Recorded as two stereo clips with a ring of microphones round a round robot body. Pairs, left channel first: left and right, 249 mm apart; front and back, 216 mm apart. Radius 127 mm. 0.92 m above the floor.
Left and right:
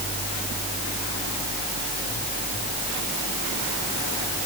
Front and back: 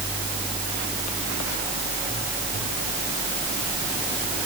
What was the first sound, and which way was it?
Only background noise.